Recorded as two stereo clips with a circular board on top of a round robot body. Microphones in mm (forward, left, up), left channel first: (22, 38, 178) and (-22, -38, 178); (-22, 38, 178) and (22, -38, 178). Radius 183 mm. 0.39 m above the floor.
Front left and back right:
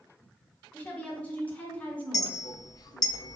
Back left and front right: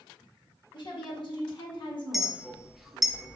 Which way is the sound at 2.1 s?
30° left.